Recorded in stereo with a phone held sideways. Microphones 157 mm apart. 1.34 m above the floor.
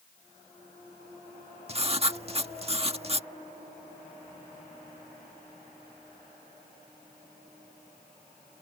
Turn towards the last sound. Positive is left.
turn(degrees=-40)  # may be behind; listen again after turning